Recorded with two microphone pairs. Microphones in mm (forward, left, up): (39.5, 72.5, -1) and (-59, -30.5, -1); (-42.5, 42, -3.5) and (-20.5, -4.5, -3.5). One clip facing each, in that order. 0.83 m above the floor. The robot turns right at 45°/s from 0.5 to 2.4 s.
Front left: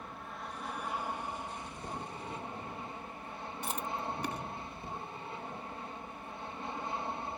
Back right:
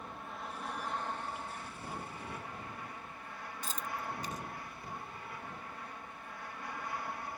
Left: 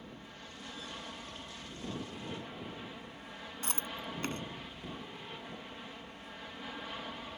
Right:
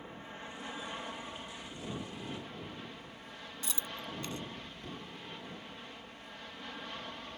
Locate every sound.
0.0 s an aircraft: 45° right; by 7.4 s 40° left
3.6 s chewing: 70° left